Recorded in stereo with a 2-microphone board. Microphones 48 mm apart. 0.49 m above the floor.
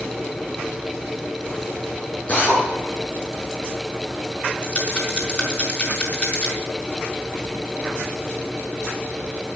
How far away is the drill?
About 7 m.